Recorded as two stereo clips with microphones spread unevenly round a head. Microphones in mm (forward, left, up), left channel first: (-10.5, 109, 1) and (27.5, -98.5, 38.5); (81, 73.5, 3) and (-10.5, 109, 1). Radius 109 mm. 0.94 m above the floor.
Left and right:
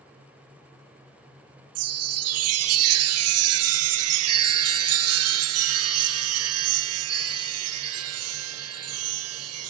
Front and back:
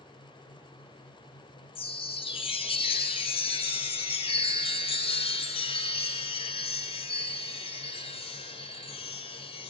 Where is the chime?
70° right, 1.0 m.